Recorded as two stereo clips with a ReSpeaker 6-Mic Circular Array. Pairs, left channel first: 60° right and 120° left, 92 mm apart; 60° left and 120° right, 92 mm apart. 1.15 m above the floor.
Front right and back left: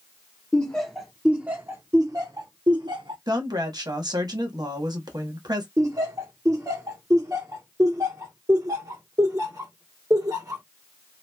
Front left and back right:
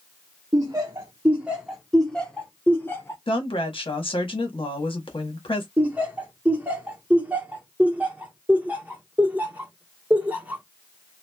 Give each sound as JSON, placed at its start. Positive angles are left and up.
{"t": 0.5, "sound": "laughter", "azimuth_deg": -130, "distance_m": 0.8}
{"t": 3.3, "sound": "a woman speaking", "azimuth_deg": 80, "distance_m": 1.0}
{"t": 5.8, "sound": "laughter", "azimuth_deg": 170, "distance_m": 1.3}